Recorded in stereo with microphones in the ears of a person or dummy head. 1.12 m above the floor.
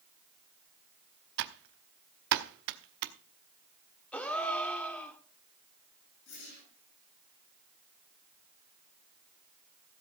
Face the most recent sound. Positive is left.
turn(degrees=60)  # may be behind; listen again after turning